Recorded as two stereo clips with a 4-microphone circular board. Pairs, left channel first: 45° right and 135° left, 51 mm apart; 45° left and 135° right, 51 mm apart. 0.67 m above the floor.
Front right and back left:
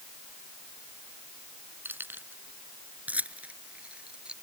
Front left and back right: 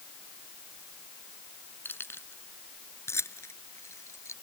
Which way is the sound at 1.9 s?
90° left.